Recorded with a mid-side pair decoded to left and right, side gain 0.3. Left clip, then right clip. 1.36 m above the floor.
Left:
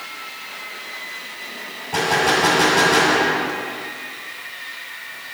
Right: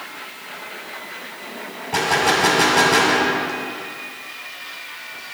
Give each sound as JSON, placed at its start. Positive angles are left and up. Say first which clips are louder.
{"t": 1.9, "sound": "a gunshot", "louder": "even", "azimuth_deg": -40, "distance_m": 2.5}